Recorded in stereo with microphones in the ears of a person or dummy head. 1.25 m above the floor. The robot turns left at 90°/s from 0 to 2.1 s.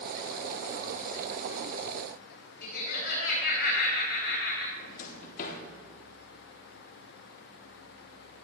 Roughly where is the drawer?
Left.